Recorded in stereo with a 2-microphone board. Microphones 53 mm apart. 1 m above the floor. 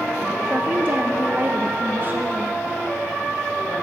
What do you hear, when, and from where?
0.5 s a woman speaking: 40° right (ahead or behind), 0.5 m